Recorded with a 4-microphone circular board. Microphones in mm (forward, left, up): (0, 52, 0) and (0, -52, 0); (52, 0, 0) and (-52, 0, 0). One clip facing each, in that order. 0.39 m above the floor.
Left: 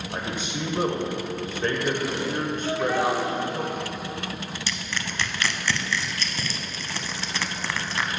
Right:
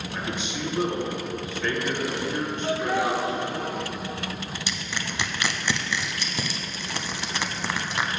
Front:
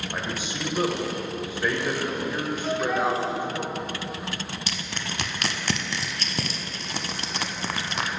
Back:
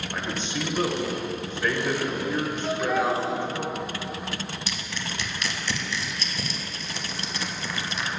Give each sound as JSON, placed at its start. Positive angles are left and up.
{"t": 0.1, "sound": "a man speaking", "azimuth_deg": 75, "distance_m": 1.1}
{"t": 2.6, "sound": "laughter", "azimuth_deg": -90, "distance_m": 0.8}
{"t": 4.7, "sound": "crushing", "azimuth_deg": -20, "distance_m": 0.5}